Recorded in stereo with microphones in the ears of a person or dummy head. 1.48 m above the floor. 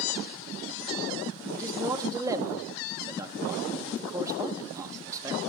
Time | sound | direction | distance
1.5 | a man speaking | 20° right (ahead or behind) | 2.5 m